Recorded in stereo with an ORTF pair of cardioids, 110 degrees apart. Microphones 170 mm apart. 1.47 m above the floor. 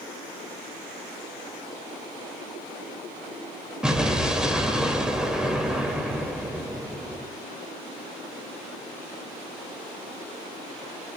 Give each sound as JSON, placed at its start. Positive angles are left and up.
{"t": 3.8, "sound": "an explosion", "azimuth_deg": -5, "distance_m": 2.5}